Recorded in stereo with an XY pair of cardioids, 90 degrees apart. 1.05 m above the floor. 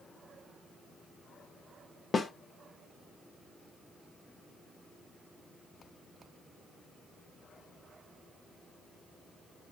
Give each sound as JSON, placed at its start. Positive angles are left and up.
{"t": 2.1, "sound": "a snare drum", "azimuth_deg": 40, "distance_m": 0.7}